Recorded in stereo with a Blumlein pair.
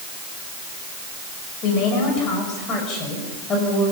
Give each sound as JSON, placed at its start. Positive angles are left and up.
{"t": 1.6, "sound": "a woman speaking", "azimuth_deg": 35, "distance_m": 6.5}